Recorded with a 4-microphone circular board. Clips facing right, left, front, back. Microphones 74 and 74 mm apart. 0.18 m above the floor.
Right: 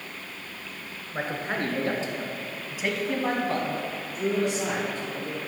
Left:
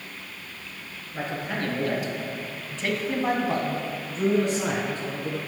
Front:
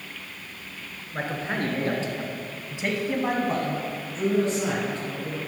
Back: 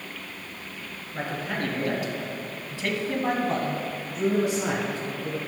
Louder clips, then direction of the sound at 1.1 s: Right 1 dB, front 2 dB; 50° right.